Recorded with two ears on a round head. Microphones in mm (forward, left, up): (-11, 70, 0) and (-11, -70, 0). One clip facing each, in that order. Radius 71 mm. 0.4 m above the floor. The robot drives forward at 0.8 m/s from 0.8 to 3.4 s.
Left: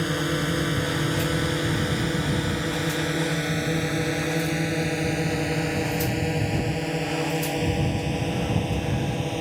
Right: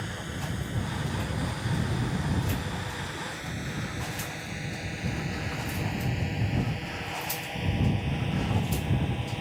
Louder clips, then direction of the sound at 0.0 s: Left 12 dB; 65° left (ahead or behind).